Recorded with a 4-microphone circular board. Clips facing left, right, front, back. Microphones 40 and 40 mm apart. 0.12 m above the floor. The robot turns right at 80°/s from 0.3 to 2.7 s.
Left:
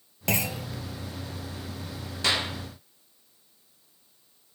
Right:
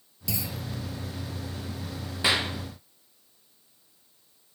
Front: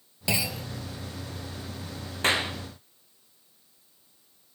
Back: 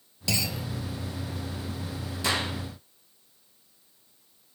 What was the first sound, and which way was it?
A clunk, 65° left.